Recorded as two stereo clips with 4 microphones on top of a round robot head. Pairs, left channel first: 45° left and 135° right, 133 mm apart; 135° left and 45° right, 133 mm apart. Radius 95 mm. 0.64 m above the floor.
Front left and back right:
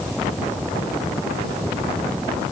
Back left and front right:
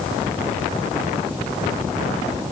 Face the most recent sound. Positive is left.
No sound to turn to.